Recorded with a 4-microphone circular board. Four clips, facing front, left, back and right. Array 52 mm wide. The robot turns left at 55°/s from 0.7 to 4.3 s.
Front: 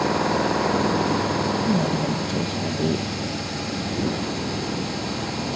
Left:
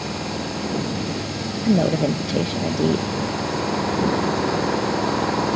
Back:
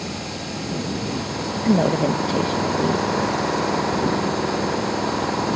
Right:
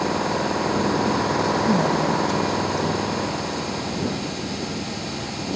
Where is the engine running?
35° right; by 5.6 s 125° left.